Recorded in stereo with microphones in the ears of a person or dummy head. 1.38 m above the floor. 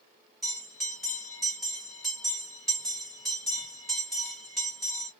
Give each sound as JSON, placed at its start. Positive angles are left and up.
{"t": 0.4, "sound": "a bell", "side_deg": -5, "distance_m": 2.0}